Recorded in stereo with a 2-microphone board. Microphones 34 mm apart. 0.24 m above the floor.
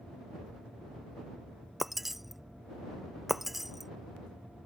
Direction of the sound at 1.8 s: 5° right (ahead or behind).